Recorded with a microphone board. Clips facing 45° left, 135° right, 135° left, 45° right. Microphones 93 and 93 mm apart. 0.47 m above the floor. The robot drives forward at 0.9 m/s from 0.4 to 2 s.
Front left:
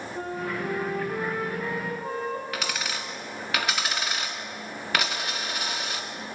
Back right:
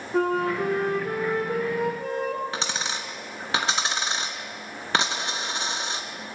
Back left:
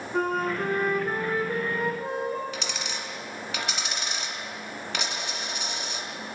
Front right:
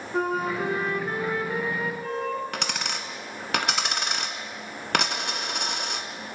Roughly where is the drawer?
I don't hear a drawer.